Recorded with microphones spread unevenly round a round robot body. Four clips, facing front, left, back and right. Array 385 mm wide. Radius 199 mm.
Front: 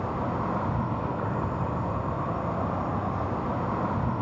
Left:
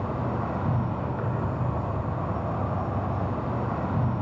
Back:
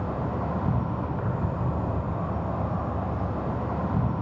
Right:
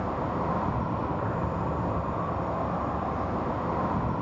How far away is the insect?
About 3 m.